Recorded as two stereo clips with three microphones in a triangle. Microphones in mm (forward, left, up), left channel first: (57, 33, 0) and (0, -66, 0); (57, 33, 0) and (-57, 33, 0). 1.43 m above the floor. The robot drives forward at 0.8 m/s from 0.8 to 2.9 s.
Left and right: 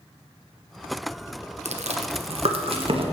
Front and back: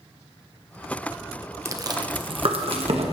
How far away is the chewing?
About 0.8 m.